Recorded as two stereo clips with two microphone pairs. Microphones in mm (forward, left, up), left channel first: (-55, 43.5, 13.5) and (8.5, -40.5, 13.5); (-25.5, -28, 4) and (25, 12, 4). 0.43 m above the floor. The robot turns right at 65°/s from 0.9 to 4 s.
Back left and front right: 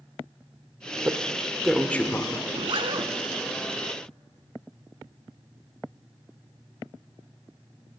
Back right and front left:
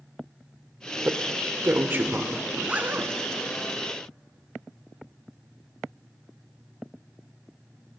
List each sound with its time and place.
1.1 s a man speaking: 5° left, 0.9 m; by 2.4 s 90° left, 0.9 m
2.5 s a zipper: 45° right, 0.7 m; by 3.1 s 5° right, 0.7 m